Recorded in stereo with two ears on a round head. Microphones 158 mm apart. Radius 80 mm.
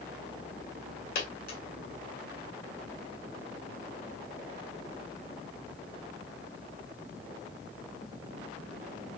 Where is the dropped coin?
55° left (ahead or behind), 1.7 m.